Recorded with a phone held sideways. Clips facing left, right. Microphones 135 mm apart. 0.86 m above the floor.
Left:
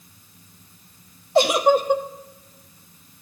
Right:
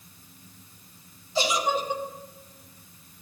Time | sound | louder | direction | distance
1.4 | a giggle | left 9 dB | 60° left (ahead or behind) | 1.0 m